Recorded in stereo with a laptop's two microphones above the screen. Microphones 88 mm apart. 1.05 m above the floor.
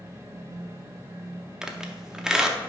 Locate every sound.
0.0 s a fan: 35° right (ahead or behind), 1.8 m
1.6 s a squeak: 10° right (ahead or behind), 0.8 m